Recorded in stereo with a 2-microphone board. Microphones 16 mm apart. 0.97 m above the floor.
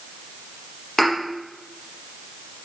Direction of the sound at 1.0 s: 15° left (ahead or behind).